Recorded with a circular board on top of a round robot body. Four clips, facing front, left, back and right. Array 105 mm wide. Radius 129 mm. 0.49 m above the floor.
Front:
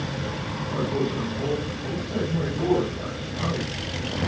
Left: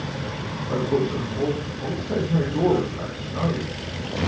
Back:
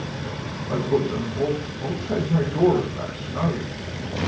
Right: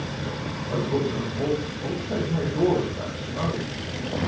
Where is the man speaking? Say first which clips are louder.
Left 3 dB, back 4 dB; 145° left, 9 m.